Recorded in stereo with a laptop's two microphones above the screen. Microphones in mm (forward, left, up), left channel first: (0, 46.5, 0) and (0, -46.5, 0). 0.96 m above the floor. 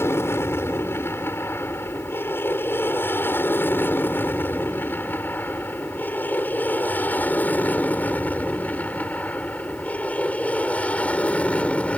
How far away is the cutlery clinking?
No cutlery clinking in this recording.